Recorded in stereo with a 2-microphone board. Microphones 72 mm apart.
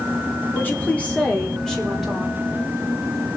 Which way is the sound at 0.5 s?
30° left (ahead or behind).